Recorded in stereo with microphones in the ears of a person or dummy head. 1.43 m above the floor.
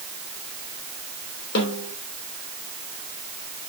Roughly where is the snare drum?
Left.